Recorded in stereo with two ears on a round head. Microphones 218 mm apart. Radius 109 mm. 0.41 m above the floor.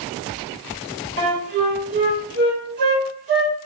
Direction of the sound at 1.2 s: 50° right (ahead or behind).